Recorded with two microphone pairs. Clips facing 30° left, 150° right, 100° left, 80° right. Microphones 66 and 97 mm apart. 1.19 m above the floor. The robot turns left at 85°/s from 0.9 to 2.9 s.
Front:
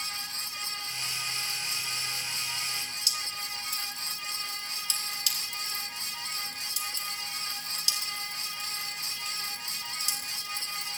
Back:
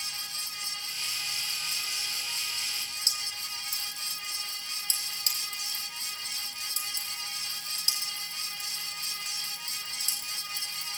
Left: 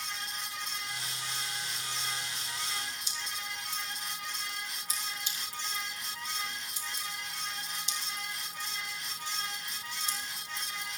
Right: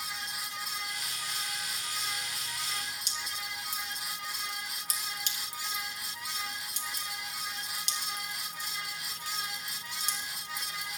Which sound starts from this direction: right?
Dripping, at 3.1 s.